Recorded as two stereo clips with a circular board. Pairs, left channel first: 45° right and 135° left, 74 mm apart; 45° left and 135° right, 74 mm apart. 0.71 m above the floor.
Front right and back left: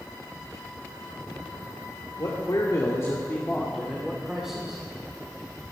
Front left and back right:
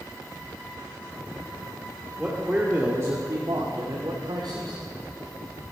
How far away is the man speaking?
About 2.5 m.